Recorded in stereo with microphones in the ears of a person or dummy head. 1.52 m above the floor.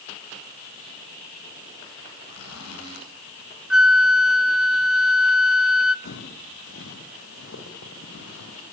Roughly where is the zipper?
Left.